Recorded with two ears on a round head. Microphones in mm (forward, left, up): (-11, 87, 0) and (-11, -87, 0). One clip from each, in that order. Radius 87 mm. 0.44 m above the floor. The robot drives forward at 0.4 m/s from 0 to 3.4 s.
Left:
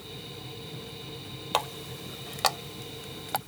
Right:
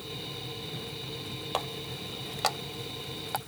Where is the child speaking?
I don't hear a child speaking.